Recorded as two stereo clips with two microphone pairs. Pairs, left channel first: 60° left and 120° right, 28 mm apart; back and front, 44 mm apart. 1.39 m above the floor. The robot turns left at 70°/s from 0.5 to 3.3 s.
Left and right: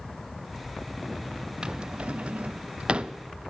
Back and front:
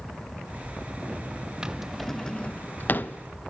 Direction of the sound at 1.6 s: 65° right.